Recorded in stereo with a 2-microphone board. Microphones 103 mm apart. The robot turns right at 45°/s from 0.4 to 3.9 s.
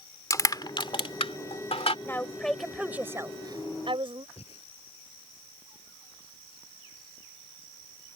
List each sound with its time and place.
0.3 s crushing: 35° left (ahead or behind); by 1.9 s 75° left (ahead or behind)
2.0 s a woman speaking: 155° left; by 4.3 s 120° right
4.4 s breathing: 80° left